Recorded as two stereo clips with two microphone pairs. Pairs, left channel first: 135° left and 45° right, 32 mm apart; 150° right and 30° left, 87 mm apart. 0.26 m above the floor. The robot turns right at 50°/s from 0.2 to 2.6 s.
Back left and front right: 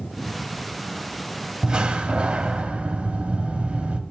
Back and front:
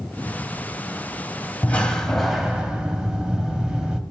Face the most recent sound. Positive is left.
turn(degrees=-40)